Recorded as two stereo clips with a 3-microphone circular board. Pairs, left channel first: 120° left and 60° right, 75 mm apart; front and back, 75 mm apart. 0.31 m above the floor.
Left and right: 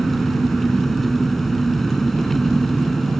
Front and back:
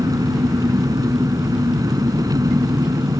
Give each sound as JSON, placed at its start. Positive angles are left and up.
{"t": 0.0, "sound": "an engine running", "azimuth_deg": -155}